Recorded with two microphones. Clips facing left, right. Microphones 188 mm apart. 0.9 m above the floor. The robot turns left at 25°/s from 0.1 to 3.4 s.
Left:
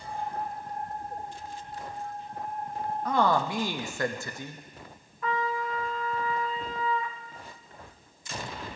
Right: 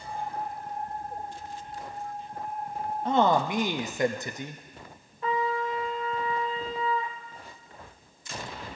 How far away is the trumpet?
About 0.8 m.